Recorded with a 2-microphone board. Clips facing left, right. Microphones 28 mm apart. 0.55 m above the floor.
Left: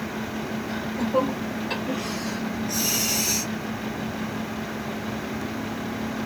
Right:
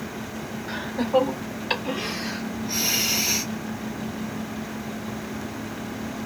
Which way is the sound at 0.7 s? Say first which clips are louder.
Right 4 dB; 45° right (ahead or behind).